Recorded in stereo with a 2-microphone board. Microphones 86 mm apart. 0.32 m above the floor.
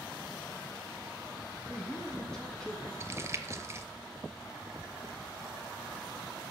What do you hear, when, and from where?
1.7 s a man speaking: 10° left (ahead or behind), 3 m
3.0 s crumpling: 30° right (ahead or behind), 0.6 m